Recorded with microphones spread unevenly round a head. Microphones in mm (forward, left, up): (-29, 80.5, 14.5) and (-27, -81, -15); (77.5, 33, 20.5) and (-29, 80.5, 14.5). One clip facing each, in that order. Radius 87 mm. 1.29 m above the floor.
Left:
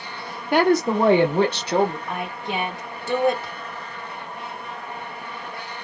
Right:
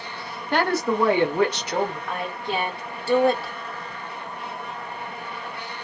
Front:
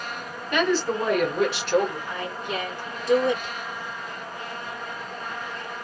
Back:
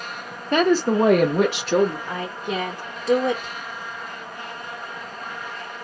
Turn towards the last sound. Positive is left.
turn(degrees=175)